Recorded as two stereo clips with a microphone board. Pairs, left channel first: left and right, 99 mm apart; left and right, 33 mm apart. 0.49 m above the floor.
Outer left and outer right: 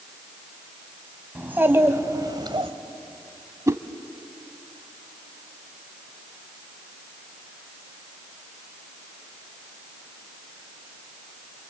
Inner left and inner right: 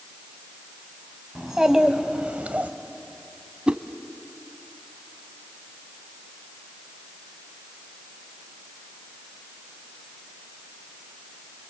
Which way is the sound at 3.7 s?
30° right (ahead or behind).